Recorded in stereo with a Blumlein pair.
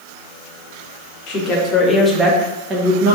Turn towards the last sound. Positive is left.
turn(degrees=-40)